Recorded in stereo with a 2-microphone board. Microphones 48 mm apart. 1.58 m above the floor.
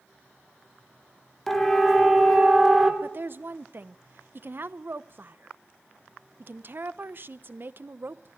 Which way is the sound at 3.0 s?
50° right (ahead or behind).